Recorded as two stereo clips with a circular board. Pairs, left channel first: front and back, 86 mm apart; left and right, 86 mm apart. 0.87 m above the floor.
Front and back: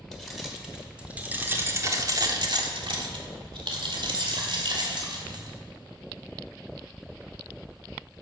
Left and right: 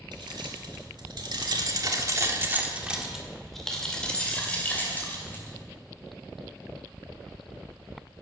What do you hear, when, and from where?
0.1 s keys jangling: 90° right, 2.5 m; by 5.6 s 155° left, 3.5 m